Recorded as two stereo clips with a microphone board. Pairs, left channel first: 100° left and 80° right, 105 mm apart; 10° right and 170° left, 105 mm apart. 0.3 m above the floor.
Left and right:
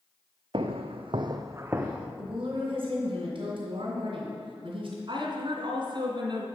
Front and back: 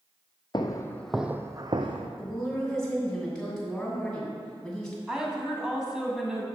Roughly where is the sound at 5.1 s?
Right.